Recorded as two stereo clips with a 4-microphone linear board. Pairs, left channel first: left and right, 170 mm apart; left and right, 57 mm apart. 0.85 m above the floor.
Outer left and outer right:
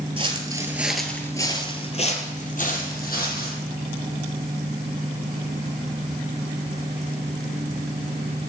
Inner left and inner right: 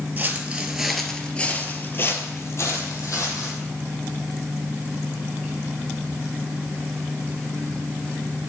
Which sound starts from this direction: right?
Footsteps, at 0.2 s.